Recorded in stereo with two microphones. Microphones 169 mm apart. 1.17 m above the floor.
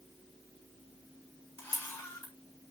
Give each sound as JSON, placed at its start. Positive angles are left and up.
{"t": 1.6, "sound": "a camera shutter", "side_deg": 10, "distance_m": 9.0}